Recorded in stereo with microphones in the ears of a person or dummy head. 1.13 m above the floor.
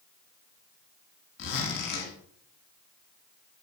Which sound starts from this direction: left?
A zipper, at 1.4 s.